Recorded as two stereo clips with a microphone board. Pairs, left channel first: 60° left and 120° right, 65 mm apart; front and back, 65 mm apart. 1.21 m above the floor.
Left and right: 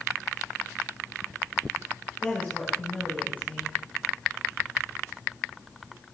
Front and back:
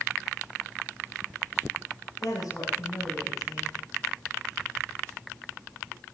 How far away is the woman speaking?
About 6 m.